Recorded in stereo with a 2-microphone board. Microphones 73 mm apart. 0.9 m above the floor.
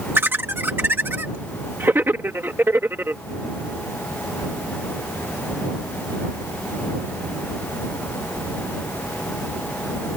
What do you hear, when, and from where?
0.1 s laughter: 30° right (ahead or behind)